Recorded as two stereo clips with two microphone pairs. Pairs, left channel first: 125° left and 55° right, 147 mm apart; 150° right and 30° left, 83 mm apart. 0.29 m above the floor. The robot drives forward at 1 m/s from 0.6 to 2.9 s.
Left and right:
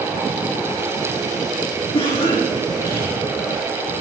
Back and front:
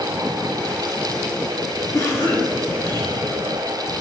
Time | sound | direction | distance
1.9 | a cough | 170° left | 4.5 m